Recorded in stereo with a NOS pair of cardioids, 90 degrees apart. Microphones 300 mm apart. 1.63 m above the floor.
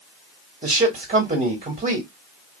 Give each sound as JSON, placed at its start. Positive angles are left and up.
{"t": 0.6, "sound": "a man speaking", "azimuth_deg": -25, "distance_m": 1.7}